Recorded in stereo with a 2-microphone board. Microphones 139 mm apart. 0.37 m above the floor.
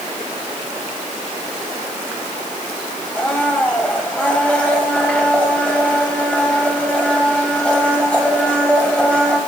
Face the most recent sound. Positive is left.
turn(degrees=10)  # may be behind; listen again after turning